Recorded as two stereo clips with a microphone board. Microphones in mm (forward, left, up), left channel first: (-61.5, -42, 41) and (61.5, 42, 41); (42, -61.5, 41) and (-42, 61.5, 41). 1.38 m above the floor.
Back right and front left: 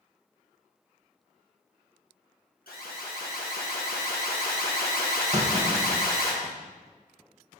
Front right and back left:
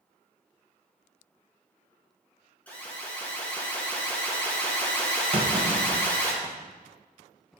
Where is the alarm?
135° right, 1.6 m.